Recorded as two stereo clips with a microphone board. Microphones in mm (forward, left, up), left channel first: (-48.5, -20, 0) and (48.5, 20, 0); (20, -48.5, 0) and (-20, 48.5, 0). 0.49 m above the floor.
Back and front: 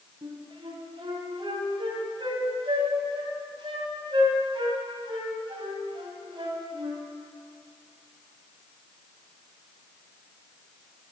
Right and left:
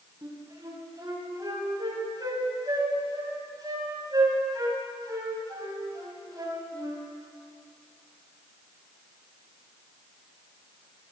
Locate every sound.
0.2 s a flute: 60° left, 2.5 m